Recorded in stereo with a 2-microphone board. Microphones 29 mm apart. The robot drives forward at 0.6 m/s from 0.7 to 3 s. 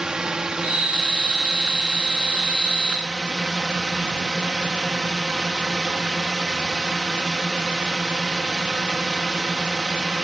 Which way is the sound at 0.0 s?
30° right (ahead or behind).